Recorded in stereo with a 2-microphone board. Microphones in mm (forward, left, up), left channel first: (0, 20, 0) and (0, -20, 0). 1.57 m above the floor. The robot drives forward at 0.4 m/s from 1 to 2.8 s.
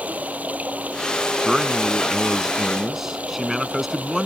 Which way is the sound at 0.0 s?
35° right (ahead or behind).